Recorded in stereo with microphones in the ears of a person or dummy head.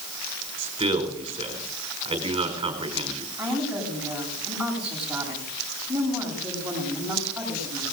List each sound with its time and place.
0.6 s a man speaking: 30° right (ahead or behind), 4.5 m
3.4 s a woman speaking: 5° right (ahead or behind), 8.5 m